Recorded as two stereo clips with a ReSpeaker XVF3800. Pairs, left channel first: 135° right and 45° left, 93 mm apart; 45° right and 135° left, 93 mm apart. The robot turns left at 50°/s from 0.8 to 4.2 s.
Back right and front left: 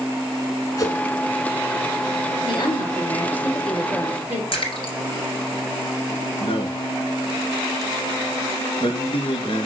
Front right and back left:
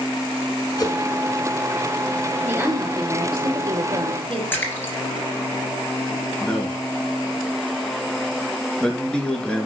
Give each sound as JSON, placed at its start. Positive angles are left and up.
{"t": 0.8, "sound": "a whoosh", "azimuth_deg": -85, "distance_m": 1.7}
{"t": 2.4, "sound": "a woman speaking", "azimuth_deg": -155, "distance_m": 3.0}
{"t": 4.5, "sound": "a splash", "azimuth_deg": -115, "distance_m": 3.0}
{"t": 6.4, "sound": "a man speaking", "azimuth_deg": -125, "distance_m": 3.0}